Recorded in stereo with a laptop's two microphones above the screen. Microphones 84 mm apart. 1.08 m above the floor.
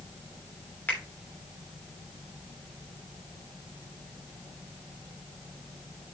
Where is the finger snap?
20° left (ahead or behind), 3 m.